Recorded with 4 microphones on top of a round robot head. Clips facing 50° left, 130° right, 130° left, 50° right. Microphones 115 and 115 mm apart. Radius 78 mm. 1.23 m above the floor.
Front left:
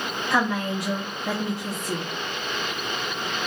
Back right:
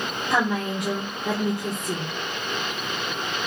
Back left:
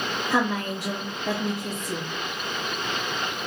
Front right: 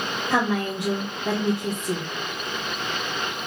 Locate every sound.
0.3 s a woman speaking: 65° right, 1.3 m